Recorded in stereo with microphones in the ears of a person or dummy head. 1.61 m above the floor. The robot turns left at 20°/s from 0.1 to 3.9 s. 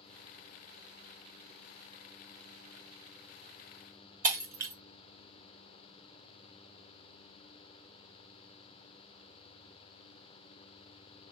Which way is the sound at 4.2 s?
25° right (ahead or behind).